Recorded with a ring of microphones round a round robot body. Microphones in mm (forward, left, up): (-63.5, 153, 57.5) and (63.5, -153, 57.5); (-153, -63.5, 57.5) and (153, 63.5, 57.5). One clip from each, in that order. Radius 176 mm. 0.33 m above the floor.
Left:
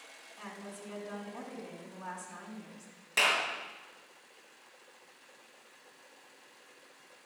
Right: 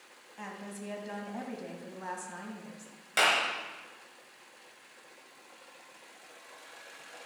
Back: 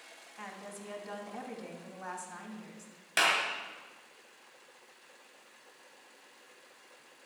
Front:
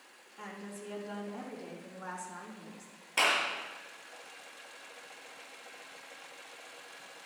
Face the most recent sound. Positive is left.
turn(degrees=-150)